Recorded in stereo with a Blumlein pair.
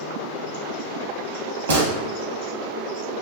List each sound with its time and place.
1.7 s a gunshot: 65° right, 2 m